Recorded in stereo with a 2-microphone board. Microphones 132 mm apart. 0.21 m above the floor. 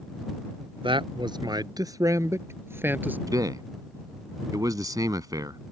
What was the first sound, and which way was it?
A man speaking, 40° right (ahead or behind).